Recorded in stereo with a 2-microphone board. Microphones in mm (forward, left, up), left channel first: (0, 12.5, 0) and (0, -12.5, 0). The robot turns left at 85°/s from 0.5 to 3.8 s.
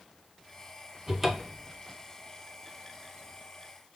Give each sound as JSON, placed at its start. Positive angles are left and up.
{"t": 1.1, "sound": "a cupboard door", "azimuth_deg": -140, "distance_m": 0.6}